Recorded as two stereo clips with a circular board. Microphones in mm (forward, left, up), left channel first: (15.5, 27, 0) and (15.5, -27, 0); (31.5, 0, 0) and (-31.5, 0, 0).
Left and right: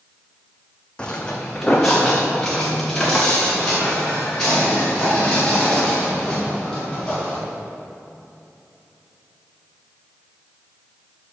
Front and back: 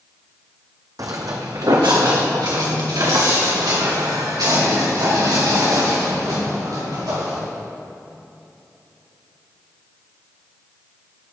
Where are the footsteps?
160° left, 1.2 m; by 7.4 s 170° left, 7 m.